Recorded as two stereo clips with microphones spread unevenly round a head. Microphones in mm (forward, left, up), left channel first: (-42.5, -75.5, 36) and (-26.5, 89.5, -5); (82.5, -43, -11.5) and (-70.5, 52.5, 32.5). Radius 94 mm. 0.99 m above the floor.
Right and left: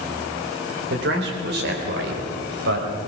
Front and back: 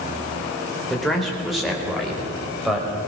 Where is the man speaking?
55° left, 4 m; by 3.0 s 60° left, 5 m.